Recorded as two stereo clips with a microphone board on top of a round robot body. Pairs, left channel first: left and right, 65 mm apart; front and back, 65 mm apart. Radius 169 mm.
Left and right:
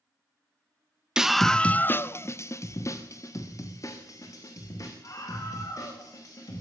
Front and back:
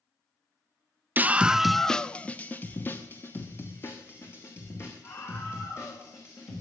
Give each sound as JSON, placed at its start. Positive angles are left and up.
{"t": 1.2, "sound": "a scream", "azimuth_deg": -160, "distance_m": 0.8}